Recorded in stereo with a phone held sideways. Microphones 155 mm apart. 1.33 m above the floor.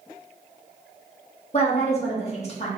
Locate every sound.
1.5 s a woman speaking: 45° left (ahead or behind), 1.1 m